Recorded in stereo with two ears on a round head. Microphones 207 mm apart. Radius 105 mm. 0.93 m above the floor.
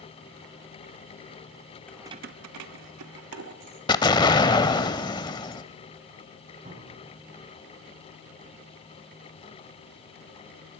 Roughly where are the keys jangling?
Centre.